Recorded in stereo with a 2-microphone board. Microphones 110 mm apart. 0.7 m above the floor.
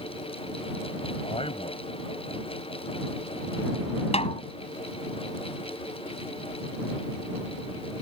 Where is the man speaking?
60° left (ahead or behind).